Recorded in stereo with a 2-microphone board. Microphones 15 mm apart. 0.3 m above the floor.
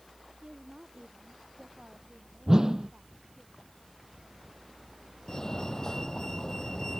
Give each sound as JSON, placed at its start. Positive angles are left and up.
{"t": 0.4, "sound": "a woman speaking", "side_deg": -55}
{"t": 2.5, "sound": "a whoosh", "side_deg": -40}
{"t": 5.3, "sound": "a fire alarm", "side_deg": 35}